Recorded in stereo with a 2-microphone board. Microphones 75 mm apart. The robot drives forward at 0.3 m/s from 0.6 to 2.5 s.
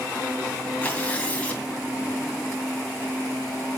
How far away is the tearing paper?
About 2 m.